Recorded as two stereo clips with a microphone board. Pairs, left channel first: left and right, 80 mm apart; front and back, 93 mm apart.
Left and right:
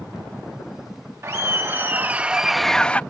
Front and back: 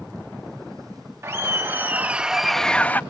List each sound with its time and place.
1.2 s laughter: 130° right; by 3.0 s 45° left